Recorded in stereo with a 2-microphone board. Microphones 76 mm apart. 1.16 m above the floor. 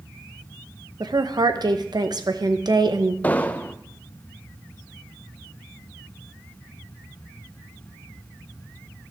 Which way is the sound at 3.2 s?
20° left (ahead or behind).